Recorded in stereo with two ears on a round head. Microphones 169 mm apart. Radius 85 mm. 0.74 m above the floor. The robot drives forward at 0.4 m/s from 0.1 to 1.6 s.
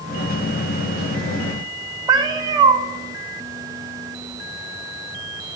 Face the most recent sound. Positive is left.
turn(degrees=-20)  # may be behind; listen again after turning